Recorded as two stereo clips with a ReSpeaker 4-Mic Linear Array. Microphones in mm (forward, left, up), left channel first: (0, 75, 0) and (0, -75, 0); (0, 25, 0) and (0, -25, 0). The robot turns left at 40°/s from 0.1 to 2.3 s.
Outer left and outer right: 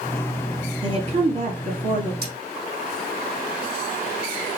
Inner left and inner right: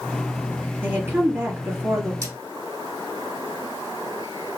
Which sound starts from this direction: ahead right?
A woman speaking, at 0.8 s.